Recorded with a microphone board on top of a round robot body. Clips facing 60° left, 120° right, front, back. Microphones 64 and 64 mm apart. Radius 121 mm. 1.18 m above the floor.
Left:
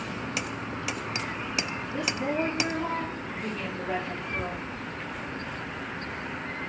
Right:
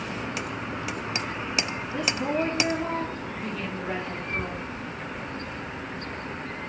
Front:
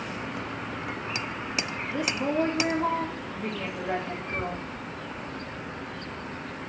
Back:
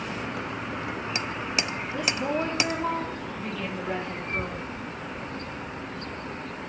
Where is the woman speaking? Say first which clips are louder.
Right 2 dB, front 1 dB; 25° right, 3.5 m.